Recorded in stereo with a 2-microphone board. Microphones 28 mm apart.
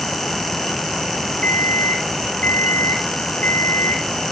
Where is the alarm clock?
75° left (ahead or behind), 3 m.